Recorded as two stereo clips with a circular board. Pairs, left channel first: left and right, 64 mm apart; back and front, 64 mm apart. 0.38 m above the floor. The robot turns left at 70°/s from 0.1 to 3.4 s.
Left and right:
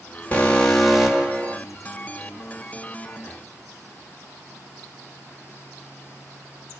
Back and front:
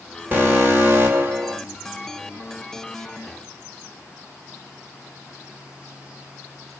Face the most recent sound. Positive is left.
turn(degrees=-175)